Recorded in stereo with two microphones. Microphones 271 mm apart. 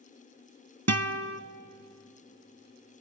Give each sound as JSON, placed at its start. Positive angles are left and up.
{"t": 0.9, "sound": "a guitar", "side_deg": -65, "distance_m": 0.8}